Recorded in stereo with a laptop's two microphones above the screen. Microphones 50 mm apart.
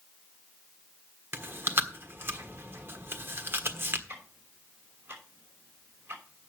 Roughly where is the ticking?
Right.